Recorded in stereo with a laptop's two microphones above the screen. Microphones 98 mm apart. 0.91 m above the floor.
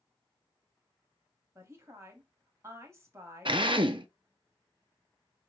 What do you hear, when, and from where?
1.6 s a woman speaking: 30° right (ahead or behind), 1.4 m
3.5 s a drill: 60° right (ahead or behind), 0.6 m